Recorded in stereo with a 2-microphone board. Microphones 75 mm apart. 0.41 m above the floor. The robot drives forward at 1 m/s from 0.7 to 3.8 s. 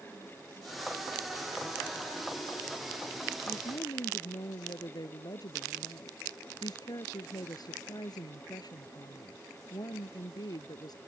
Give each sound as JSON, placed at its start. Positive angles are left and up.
{"t": 3.5, "sound": "a woman speaking", "side_deg": 60}